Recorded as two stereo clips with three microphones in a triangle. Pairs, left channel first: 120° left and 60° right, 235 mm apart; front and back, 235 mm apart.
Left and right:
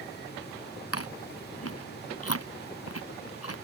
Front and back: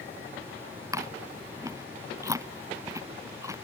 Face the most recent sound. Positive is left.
turn(degrees=105)